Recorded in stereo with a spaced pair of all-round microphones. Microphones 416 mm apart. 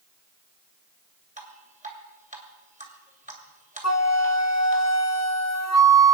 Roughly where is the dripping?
Centre.